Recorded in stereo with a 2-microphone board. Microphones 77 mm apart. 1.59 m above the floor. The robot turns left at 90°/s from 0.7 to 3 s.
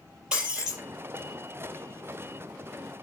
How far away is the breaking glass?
About 4.5 m.